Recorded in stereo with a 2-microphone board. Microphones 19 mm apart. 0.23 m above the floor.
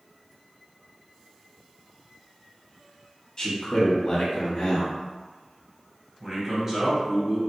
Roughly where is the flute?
No flute in this recording.